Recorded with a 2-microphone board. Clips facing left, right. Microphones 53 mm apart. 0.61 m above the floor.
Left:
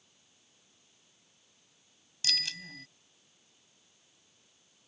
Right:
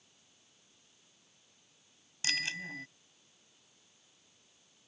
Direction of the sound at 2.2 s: 25° right (ahead or behind).